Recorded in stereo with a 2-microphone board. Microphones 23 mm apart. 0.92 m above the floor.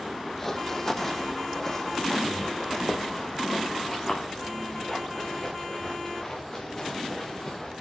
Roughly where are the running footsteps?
Centre.